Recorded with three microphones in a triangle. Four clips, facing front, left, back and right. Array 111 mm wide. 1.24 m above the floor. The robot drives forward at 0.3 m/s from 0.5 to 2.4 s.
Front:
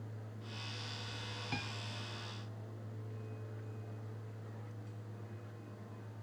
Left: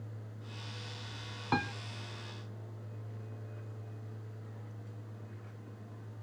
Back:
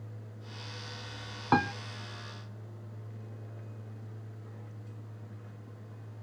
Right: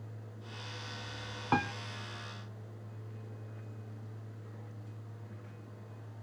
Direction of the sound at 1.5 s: 175° right.